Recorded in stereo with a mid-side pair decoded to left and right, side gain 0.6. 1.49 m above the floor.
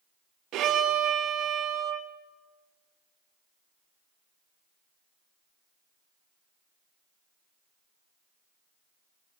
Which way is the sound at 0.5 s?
65° right.